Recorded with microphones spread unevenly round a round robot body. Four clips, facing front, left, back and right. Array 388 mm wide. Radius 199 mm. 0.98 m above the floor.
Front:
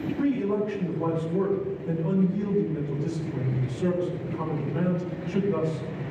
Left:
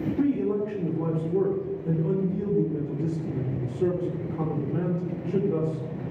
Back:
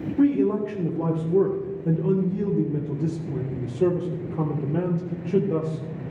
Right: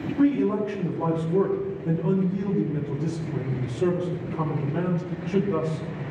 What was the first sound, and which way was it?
A man speaking, straight behind.